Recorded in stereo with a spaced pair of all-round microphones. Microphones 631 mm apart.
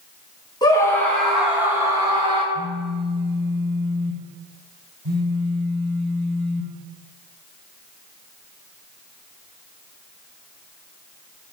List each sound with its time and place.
0.6 s a scream: 5° left (ahead or behind), 3.5 m; by 2.4 s 10° right (ahead or behind), 4.5 m
2.5 s a phone buzzing: 50° right (ahead or behind), 4 m